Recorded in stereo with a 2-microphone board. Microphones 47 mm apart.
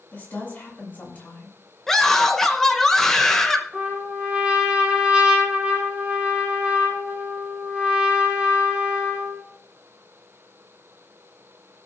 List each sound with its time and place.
0.1 s a woman speaking: 35° left (ahead or behind), 6.5 m
1.9 s a scream: 10° left (ahead or behind), 1.8 m
3.7 s a trumpet: 20° right (ahead or behind), 5 m